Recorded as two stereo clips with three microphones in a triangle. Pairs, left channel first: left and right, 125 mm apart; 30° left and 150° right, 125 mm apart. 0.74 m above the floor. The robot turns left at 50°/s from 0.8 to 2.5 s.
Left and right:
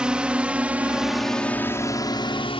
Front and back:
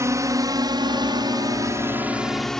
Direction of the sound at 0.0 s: 160° right.